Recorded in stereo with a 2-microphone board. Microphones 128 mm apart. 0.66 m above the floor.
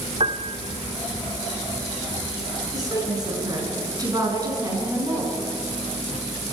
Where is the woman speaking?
30° right (ahead or behind), 8.5 m.